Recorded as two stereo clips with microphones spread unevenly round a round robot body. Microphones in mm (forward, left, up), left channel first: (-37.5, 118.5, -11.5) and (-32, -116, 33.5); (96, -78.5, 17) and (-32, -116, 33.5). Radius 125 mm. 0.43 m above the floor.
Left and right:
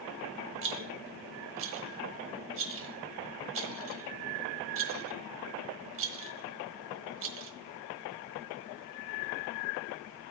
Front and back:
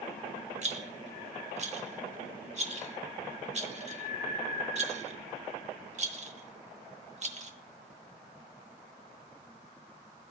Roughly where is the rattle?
Behind right.